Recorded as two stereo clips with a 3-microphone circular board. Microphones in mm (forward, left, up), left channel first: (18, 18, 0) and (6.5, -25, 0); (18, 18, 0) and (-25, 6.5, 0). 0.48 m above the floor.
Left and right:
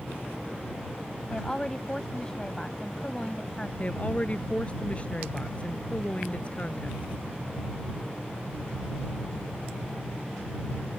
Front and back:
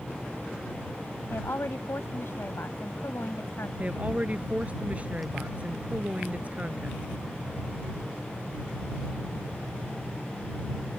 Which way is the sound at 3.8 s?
135° left.